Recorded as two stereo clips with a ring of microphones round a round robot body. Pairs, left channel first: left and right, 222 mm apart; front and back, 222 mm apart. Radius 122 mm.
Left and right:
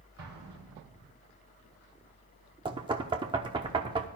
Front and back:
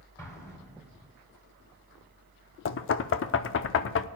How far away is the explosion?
About 4 m.